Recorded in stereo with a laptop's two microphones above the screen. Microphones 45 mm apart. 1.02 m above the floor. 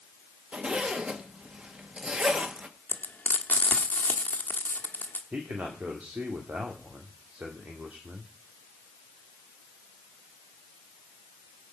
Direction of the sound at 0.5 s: 20° right (ahead or behind).